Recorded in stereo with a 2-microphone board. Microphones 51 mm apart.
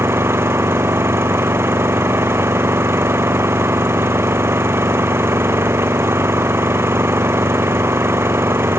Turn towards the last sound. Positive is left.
turn(degrees=-50)  # may be behind; listen again after turning